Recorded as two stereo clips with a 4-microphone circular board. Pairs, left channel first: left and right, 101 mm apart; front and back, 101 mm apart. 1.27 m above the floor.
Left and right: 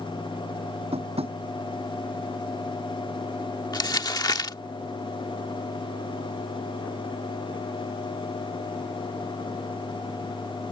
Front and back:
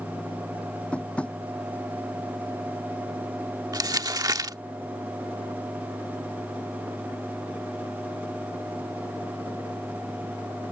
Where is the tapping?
80° right.